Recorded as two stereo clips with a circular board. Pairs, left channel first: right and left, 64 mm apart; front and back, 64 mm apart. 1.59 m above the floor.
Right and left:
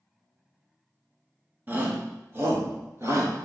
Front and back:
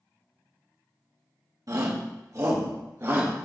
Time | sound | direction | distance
1.7 | a shout | 150° left | 1.7 m